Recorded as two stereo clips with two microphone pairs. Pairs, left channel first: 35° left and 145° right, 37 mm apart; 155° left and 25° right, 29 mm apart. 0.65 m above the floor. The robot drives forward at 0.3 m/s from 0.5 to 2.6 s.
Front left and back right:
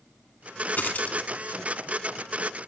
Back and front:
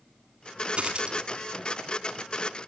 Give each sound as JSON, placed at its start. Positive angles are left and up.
{"t": 0.8, "sound": "a dropped coin", "azimuth_deg": 5, "distance_m": 0.8}